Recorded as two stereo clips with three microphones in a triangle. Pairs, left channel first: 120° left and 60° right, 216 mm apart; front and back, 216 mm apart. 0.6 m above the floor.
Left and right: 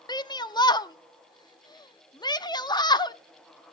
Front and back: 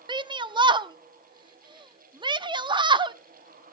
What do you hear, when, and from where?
0.1 s a shout: 155° left, 0.6 m